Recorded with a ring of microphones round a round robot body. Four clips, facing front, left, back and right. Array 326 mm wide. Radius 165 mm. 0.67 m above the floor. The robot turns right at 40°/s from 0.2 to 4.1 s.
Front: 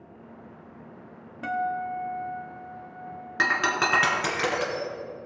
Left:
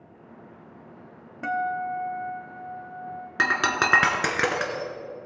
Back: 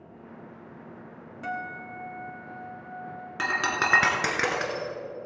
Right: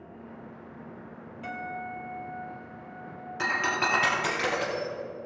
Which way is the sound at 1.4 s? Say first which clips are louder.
Left 10 dB, front 7 dB; 60° left.